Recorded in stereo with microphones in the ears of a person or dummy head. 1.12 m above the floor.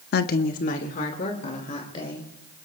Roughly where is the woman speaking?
Left.